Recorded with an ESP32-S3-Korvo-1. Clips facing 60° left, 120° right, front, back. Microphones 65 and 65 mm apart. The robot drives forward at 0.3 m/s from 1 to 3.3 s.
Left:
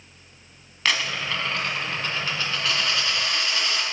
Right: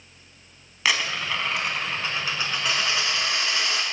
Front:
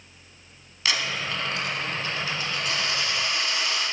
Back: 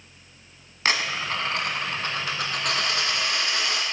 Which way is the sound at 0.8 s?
160° left.